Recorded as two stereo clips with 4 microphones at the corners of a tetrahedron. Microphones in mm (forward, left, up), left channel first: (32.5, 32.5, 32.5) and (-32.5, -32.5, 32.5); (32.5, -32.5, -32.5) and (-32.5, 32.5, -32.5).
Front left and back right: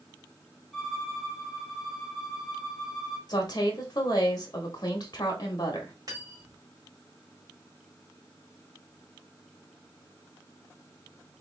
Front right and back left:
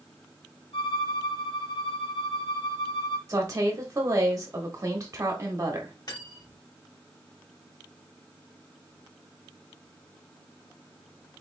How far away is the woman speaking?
About 1.1 m.